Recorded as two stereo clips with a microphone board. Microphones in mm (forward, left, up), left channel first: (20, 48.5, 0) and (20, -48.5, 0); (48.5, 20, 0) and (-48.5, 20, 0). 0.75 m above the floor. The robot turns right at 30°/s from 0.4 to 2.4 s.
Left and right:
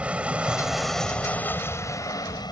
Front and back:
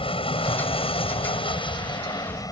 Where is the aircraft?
15° right; by 2.5 s 45° left.